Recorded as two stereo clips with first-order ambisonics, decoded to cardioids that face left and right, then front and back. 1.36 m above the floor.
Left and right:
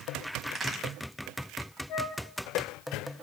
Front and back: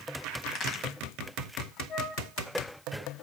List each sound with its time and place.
0.5 s a crack: 30° right, 1.5 m
1.9 s a flute: 60° left, 3 m